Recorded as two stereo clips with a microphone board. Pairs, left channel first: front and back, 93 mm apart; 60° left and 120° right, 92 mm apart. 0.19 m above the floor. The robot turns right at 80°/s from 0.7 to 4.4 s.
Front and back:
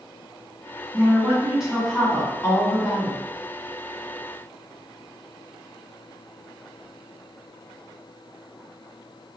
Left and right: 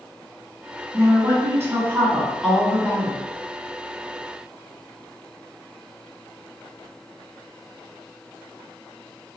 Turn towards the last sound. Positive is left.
turn(degrees=125)